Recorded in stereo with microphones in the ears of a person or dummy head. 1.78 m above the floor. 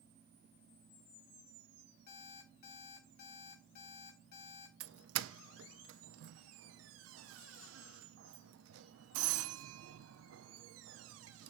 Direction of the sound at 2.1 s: 60° left (ahead or behind).